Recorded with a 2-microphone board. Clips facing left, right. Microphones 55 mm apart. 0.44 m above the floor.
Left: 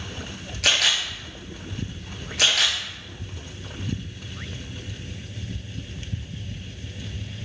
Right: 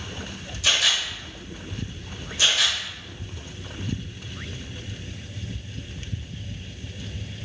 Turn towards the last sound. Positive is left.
turn(degrees=70)  # may be behind; listen again after turning